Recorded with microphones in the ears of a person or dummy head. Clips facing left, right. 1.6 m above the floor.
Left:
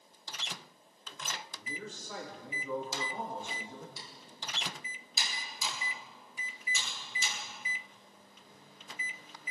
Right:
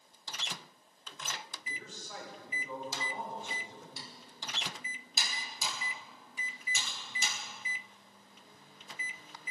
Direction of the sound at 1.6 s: 90° left.